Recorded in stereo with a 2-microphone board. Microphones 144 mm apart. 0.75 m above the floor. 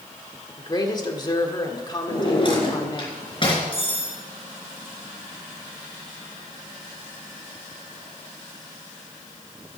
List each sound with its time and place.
0.6 s a woman speaking: 30° left (ahead or behind), 1.5 m
2.1 s a drawer: 35° left (ahead or behind), 4 m
3.7 s cutlery clinking: 40° left (ahead or behind), 5.5 m